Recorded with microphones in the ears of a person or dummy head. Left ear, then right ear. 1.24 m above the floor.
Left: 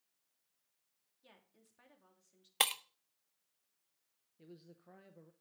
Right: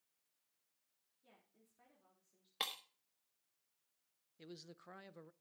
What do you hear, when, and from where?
1.2 s a woman speaking: 40° left (ahead or behind), 3 m
2.6 s breaking glass: 20° left (ahead or behind), 0.5 m
4.4 s a man speaking: 50° right (ahead or behind), 0.7 m